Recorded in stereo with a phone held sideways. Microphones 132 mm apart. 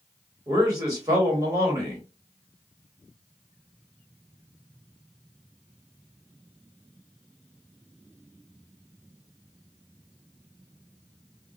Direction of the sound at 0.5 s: 25° right (ahead or behind).